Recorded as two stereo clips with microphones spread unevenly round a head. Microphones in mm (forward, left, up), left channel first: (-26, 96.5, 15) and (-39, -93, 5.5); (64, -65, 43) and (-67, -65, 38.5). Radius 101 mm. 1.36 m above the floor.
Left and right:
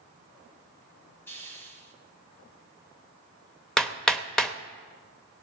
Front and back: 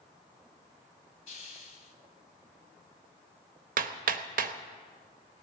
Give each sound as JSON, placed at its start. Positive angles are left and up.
{"t": 1.3, "sound": "a hiss", "azimuth_deg": 10, "distance_m": 1.9}
{"t": 3.8, "sound": "hammering", "azimuth_deg": 170, "distance_m": 1.0}